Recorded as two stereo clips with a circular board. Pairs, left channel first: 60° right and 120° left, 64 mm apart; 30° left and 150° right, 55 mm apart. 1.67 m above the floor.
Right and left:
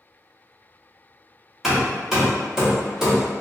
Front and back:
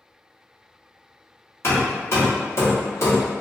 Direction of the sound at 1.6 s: 40° left.